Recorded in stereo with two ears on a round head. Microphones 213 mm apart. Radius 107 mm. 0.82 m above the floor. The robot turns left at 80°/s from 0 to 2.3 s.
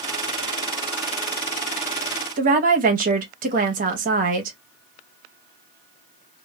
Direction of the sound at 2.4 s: 35° right (ahead or behind).